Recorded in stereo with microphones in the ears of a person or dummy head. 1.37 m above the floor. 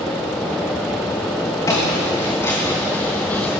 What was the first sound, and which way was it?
Footsteps, 15° left (ahead or behind).